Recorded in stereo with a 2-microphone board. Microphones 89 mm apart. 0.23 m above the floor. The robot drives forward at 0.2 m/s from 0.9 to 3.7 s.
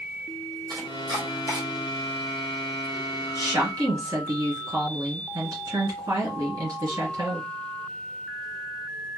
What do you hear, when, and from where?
0.7 s chopping: 45° right (ahead or behind), 3 m; by 1.6 s 40° right (ahead or behind), 3 m
3.4 s a woman speaking: 45° right (ahead or behind), 2.5 m; by 7.5 s 40° right (ahead or behind), 2.5 m